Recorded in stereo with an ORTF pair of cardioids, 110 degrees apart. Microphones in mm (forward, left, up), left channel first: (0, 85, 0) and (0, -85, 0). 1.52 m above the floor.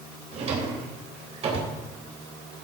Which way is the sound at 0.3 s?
45° right.